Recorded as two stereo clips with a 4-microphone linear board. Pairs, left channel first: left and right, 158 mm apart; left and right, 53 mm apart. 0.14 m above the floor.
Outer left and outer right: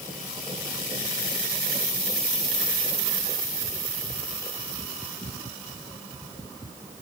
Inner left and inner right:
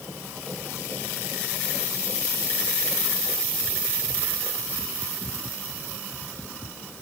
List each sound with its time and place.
Only background noise.